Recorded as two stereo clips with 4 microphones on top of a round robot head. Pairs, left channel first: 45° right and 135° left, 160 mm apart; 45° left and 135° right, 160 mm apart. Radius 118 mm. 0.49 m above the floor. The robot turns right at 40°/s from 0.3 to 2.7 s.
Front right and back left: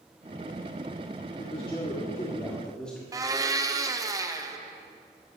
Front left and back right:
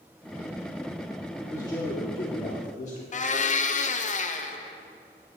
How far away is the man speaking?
About 1.8 m.